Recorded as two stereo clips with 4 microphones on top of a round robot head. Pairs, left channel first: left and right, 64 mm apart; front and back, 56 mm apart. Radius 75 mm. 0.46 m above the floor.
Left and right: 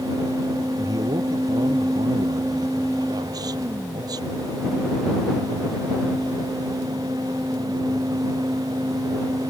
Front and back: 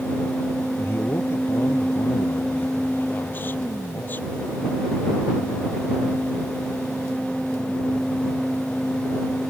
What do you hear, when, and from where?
0.8 s a man speaking: 55° right; by 4.7 s 65° right